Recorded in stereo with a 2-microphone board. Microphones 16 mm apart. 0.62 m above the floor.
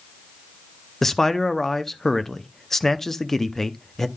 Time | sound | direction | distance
1.0 | a man speaking | 25° left (ahead or behind) | 0.6 m